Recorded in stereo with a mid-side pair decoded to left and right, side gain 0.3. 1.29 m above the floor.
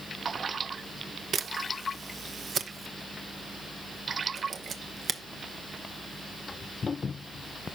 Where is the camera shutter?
65° right, 0.9 m.